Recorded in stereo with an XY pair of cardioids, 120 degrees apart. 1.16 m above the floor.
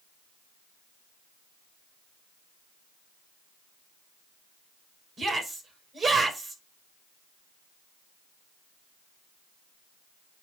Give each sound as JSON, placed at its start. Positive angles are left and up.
{"t": 5.2, "sound": "a shout", "azimuth_deg": -30, "distance_m": 5.0}